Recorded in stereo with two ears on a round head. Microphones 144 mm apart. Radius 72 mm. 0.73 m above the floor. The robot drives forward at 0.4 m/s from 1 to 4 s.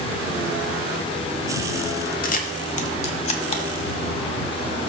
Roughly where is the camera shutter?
Left.